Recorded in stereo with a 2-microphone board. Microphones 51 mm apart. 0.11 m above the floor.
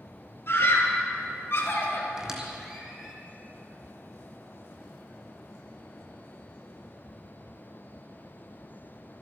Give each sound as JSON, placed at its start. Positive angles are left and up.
{"t": 0.5, "sound": "a scream", "side_deg": 50, "distance_m": 3.0}
{"t": 2.2, "sound": "a squeak", "side_deg": -10, "distance_m": 2.0}